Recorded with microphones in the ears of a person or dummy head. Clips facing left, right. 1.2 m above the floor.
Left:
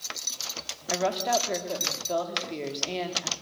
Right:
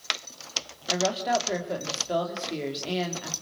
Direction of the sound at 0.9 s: 10° right (ahead or behind).